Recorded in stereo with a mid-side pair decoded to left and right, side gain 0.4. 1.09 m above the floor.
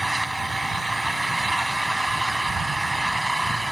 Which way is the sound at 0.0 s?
10° right.